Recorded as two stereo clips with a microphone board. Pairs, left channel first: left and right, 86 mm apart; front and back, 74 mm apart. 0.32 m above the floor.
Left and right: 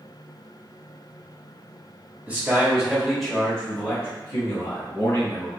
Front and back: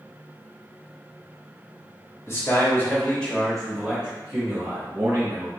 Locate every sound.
2.3 s a man speaking: 25° right, 1.2 m; by 5.5 s 135° left, 1.7 m